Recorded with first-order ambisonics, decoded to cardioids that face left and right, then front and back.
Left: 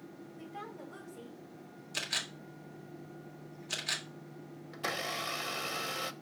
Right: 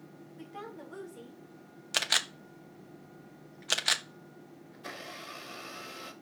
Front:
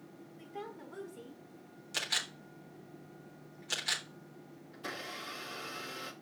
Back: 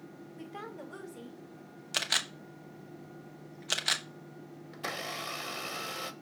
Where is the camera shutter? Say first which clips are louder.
Right 7 dB, back 4 dB; 115° right, 0.9 m.